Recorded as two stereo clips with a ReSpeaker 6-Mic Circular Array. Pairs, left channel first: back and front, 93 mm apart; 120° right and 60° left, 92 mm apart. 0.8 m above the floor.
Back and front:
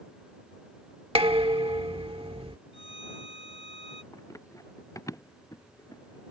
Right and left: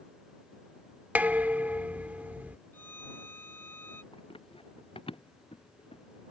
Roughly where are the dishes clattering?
Ahead.